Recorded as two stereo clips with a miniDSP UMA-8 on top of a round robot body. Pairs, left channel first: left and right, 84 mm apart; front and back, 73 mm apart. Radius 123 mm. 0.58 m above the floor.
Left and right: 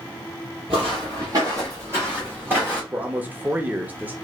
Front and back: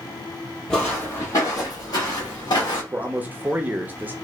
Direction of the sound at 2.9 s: 140° right.